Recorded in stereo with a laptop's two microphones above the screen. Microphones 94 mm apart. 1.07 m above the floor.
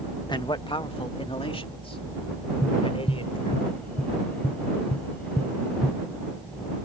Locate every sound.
0.3 s a man speaking: 50° left (ahead or behind); by 3.6 s 75° left (ahead or behind)
2.6 s tapping: 15° left (ahead or behind)